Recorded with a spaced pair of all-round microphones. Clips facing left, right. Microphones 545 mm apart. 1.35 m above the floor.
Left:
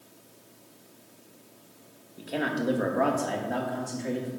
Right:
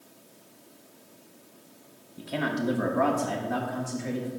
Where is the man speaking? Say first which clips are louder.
Even; 25° right (ahead or behind), 1.3 m; by 4.3 s 30° right (ahead or behind), 2.5 m.